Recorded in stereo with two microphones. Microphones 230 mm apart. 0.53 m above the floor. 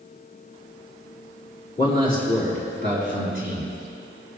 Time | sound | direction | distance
1.8 | a man speaking | 35° left (ahead or behind) | 5.5 m